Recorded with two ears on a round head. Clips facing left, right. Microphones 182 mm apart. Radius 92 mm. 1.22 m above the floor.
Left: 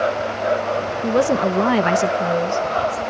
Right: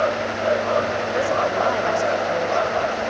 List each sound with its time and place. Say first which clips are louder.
1.0 s a woman speaking: left 4 dB; 60° left (ahead or behind), 1.0 m; by 3.0 s 55° left (ahead or behind), 2.5 m